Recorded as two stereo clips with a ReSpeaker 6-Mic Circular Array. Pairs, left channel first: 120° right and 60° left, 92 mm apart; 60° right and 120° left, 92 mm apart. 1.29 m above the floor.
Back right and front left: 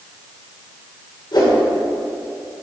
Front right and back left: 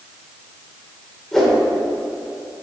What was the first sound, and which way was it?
A whoosh, 145° right.